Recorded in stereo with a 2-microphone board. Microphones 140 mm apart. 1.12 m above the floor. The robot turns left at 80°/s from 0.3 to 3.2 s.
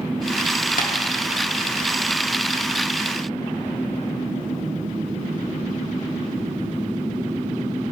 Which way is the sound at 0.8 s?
70° left (ahead or behind).